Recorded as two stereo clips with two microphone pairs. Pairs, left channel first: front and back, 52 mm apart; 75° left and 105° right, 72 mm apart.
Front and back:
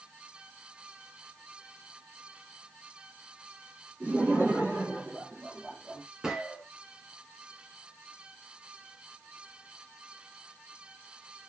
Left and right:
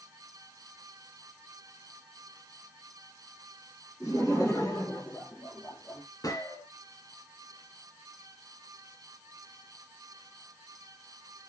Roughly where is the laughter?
Behind left.